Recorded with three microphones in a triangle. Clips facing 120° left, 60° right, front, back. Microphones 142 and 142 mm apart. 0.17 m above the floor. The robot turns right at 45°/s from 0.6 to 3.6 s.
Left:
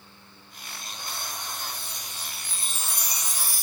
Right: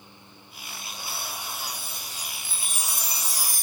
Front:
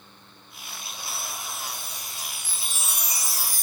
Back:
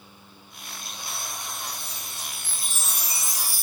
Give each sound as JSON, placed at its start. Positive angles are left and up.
{"t": 1.7, "sound": "a chime", "azimuth_deg": 175, "distance_m": 0.7}